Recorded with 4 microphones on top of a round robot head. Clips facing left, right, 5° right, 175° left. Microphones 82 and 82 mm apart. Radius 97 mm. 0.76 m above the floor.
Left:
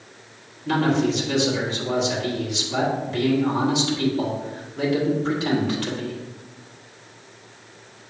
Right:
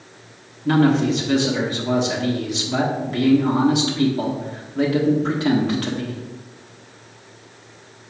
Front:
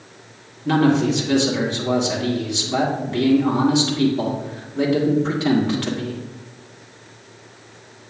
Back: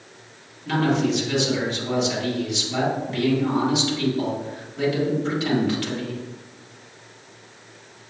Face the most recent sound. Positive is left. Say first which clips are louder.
# right 4 dB, front 4 dB
turn(degrees=-55)